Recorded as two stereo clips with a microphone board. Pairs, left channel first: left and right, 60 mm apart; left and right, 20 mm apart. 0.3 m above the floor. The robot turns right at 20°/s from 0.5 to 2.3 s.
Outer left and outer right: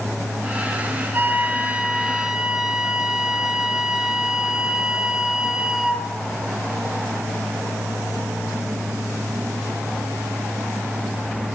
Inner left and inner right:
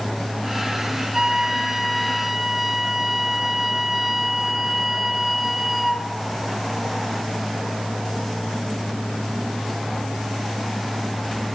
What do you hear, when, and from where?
1.1 s a flute: 30° right (ahead or behind), 2 m; by 6.1 s 10° right (ahead or behind), 2 m